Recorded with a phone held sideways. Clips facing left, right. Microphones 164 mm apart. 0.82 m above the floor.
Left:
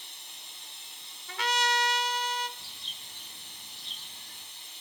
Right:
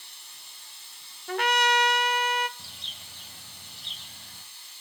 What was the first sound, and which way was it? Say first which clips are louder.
Running water: left 2 dB; 20° left (ahead or behind).